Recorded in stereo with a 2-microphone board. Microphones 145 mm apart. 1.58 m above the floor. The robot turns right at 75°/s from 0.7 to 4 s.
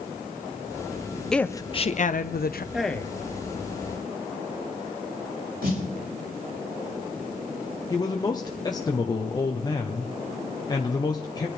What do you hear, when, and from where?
1.3 s a woman speaking: 5° left, 0.8 m; by 2.6 s 105° left, 0.8 m
2.7 s a man speaking: 5° right, 1.1 m; by 3.2 s 25° left, 1.1 m
5.6 s a snare drum: 75° right (ahead or behind), 5 m
7.9 s a man speaking: 25° left (ahead or behind), 0.9 m